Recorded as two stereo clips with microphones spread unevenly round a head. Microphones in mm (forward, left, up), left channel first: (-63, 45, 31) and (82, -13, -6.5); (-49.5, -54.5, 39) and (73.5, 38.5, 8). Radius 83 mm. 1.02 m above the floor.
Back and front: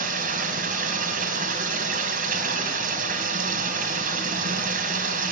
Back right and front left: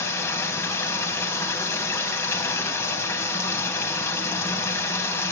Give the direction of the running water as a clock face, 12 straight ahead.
2 o'clock.